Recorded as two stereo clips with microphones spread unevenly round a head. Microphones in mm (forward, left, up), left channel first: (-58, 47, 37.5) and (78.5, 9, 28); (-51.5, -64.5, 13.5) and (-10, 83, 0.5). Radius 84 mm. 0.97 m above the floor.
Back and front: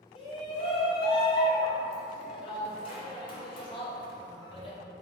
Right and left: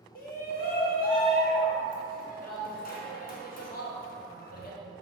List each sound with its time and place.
0.1 s a shout: 135° right, 0.7 m